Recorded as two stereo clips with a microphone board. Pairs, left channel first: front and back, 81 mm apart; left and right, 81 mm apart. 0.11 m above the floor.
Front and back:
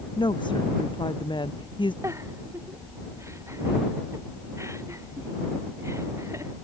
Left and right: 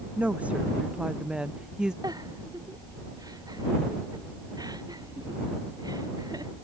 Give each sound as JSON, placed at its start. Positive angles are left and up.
{"t": 0.2, "sound": "a woman speaking", "azimuth_deg": -15}
{"t": 2.0, "sound": "a giggle", "azimuth_deg": -125}